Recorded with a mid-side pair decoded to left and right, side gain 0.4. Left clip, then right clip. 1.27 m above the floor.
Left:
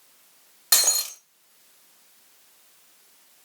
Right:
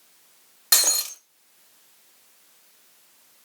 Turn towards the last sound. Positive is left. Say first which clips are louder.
# right 1 dB
turn(degrees=-5)